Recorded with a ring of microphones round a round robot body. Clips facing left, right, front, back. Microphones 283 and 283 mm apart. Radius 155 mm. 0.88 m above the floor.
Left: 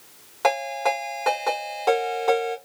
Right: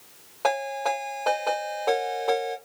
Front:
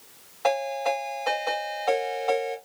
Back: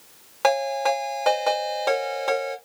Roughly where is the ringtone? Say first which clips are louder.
Left 3 dB, back 3 dB; behind left.